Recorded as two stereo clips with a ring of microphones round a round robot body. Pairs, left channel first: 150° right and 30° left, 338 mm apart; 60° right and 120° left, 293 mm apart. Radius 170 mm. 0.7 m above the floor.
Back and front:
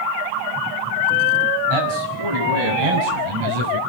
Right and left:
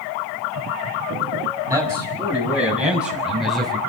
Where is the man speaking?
40° left, 7 m; by 3.8 s 30° left, 5 m.